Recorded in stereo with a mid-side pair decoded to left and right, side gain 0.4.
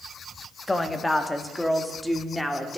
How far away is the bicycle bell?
I don't hear a bicycle bell.